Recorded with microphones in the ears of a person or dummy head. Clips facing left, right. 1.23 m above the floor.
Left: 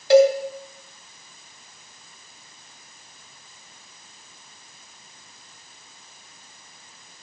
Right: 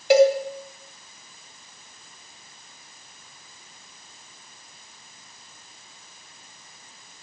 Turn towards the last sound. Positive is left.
turn(degrees=-20)  # may be behind; listen again after turning